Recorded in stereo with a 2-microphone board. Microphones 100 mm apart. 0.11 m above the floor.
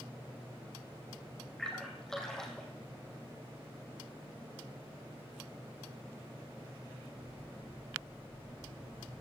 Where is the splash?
5° left (ahead or behind), 3 m.